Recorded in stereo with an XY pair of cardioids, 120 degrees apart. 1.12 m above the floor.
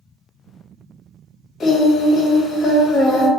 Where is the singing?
50° left, 1.0 m.